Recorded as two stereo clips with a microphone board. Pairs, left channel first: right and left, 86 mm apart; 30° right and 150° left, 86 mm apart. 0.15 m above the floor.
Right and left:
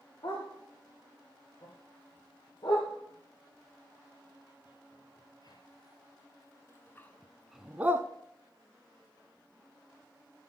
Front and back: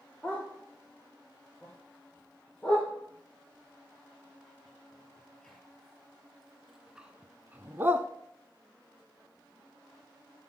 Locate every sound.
0.2 s a dog barking: 110° right, 4 m; by 8.1 s 115° left, 0.6 m